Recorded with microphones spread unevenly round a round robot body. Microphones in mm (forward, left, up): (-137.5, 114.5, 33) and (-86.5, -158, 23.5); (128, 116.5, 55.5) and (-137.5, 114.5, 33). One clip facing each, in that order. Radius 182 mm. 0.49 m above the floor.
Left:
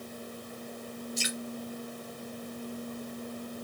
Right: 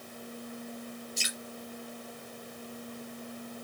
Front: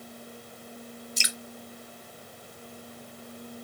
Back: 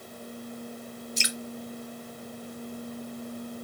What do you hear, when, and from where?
1.2 s dripping: 10° right, 1.1 m